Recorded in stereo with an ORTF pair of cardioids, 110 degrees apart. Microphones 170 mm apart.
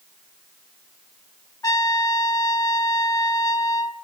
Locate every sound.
1.6 s a trumpet: 20° left, 1.7 m